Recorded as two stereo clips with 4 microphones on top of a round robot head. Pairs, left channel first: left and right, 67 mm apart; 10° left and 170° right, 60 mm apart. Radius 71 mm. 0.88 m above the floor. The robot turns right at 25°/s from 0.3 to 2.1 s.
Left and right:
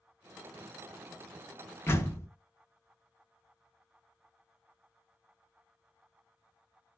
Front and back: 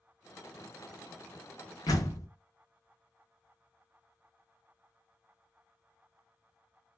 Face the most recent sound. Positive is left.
turn(degrees=40)